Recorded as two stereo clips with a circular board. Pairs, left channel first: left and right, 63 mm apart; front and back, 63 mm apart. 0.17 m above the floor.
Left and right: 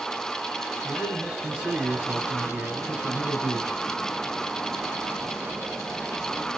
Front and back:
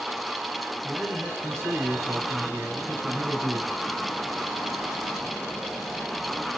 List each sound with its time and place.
0.8 s a man speaking: 165° right, 3 m